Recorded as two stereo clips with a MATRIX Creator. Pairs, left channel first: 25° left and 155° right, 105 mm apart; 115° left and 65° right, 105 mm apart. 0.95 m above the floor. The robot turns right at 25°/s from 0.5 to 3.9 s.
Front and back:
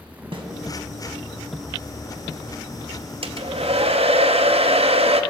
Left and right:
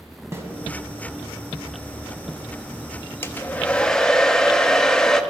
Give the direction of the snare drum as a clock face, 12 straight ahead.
4 o'clock.